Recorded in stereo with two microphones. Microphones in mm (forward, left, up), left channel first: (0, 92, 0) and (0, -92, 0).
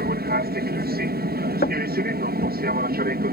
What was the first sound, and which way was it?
An aircraft, 60° right (ahead or behind).